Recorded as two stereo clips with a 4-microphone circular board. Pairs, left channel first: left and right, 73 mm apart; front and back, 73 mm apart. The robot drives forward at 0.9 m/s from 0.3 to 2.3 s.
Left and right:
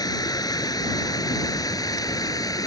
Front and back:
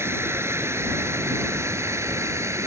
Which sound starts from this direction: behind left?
Running water, at 0.0 s.